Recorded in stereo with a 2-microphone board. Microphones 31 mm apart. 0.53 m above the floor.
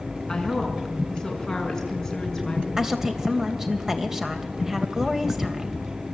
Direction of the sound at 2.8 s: 10° right (ahead or behind).